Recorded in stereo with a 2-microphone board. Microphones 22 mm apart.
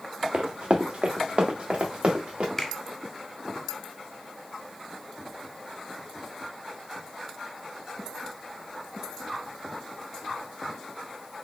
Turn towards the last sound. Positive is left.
turn(degrees=20)  # may be behind; listen again after turning